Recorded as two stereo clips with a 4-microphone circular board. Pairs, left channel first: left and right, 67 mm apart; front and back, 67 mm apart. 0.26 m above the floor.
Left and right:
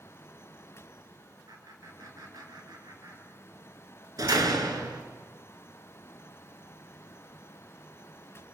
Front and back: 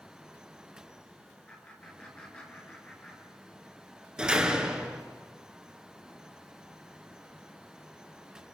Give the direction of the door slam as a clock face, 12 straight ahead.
3 o'clock.